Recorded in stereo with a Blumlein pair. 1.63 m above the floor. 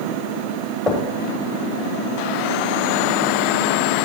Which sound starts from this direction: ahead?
Knocking, at 0.9 s.